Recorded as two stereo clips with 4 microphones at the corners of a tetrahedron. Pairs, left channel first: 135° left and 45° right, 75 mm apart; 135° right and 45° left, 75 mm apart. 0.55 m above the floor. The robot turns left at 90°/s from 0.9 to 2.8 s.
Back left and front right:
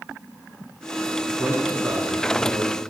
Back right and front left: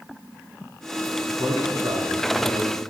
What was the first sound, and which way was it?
A man speaking, 85° left.